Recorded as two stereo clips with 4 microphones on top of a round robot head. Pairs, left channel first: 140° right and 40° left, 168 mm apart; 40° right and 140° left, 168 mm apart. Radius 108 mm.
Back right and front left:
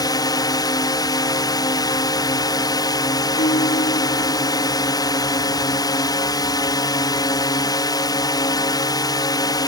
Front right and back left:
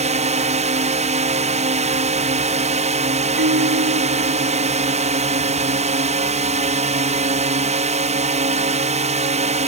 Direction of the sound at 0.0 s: 160° left.